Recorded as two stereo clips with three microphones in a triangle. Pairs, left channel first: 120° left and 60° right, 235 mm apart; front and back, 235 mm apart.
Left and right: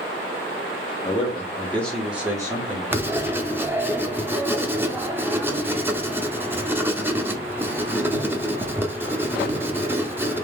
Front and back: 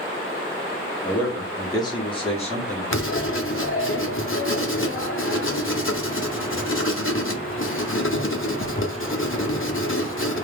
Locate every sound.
1.0 s a man speaking: 80° left, 1.2 m; by 2.8 s 20° right, 1.1 m
2.9 s writing: 20° left, 0.6 m